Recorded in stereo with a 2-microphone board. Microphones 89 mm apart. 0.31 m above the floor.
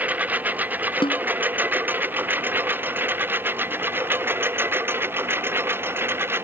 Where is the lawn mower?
20° right (ahead or behind); by 6.5 s 25° right (ahead or behind).